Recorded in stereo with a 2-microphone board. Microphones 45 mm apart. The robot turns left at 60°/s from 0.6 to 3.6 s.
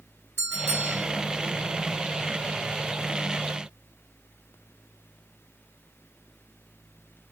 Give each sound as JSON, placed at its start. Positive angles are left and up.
{"t": 0.4, "sound": "a bell", "side_deg": -60, "distance_m": 1.4}